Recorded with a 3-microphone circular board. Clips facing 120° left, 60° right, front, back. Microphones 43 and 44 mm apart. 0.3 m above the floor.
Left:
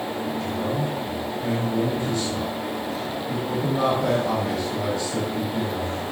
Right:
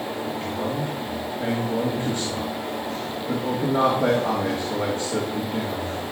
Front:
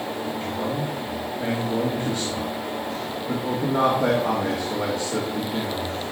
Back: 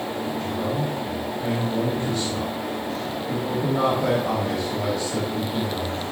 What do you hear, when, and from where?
0.4 s a man speaking: 20° right, 3.5 m